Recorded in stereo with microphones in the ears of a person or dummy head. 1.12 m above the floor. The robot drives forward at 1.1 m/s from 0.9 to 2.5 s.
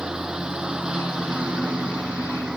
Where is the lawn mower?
Centre (ahead or behind).